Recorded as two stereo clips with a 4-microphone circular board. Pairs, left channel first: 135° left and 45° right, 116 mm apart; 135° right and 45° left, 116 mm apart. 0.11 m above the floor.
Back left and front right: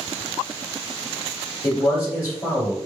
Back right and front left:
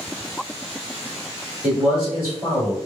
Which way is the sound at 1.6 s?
90° left.